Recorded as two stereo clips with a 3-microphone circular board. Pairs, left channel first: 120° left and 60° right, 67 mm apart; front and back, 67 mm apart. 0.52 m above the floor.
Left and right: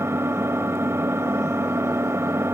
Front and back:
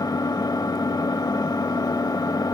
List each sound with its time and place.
0.0 s an engine running: 10° right, 0.8 m